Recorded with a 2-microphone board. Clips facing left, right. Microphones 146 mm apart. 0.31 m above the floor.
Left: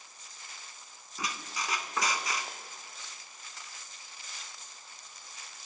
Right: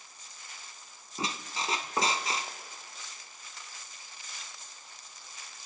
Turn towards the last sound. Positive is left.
turn(degrees=-30)  # may be behind; listen again after turning